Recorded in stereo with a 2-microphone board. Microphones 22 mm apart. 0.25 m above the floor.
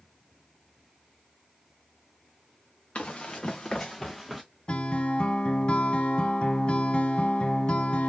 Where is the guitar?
45° left (ahead or behind), 0.6 m.